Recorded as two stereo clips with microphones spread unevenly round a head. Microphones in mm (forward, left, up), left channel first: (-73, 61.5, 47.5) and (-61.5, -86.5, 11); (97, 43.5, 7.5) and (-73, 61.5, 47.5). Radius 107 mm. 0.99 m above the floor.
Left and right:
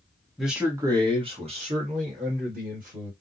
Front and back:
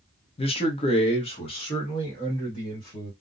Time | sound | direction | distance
0.4 | a man speaking | 10° right | 0.6 m